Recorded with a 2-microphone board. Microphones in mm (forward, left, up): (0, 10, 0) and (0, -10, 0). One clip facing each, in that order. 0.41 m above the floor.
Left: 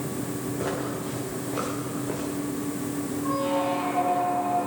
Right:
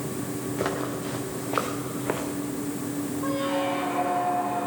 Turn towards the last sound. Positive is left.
turn(degrees=-65)  # may be behind; listen again after turning